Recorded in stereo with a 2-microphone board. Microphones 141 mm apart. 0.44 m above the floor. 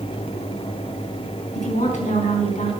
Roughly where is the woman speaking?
Left.